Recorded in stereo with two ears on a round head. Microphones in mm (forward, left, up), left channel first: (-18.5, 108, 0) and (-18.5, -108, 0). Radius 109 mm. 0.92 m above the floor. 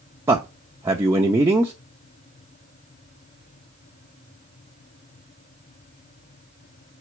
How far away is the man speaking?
About 0.7 m.